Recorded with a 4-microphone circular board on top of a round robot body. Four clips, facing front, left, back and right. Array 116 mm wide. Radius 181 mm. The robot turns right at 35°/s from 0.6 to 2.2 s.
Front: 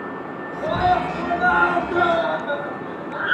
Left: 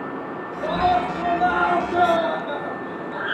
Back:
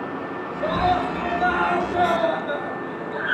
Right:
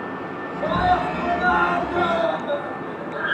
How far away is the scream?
About 9 m.